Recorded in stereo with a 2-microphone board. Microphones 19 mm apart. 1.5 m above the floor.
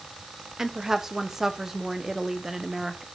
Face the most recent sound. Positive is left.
turn(degrees=-20)  # may be behind; listen again after turning